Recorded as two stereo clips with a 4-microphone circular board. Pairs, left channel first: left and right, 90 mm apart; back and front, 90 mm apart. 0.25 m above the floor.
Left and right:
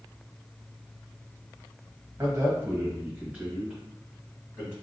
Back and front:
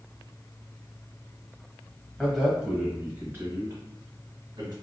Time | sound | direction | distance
2.2 | a man speaking | 90° right | 1.1 m